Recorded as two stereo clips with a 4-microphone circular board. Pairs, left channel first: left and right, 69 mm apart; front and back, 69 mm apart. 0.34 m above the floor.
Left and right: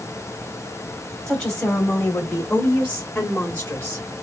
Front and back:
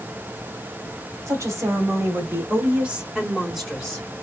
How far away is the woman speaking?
About 2 m.